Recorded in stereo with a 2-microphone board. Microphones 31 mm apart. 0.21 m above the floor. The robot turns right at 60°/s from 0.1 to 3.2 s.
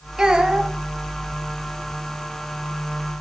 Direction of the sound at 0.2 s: 25° right (ahead or behind).